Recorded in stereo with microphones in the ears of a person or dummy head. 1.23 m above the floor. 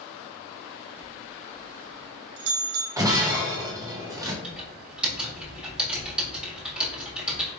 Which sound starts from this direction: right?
A bell, at 1.0 s.